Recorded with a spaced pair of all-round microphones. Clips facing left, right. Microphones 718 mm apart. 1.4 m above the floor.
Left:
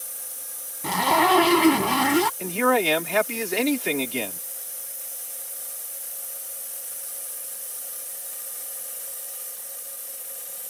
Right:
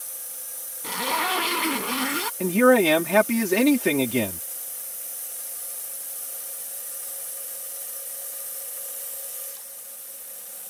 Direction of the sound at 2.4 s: 70° right (ahead or behind).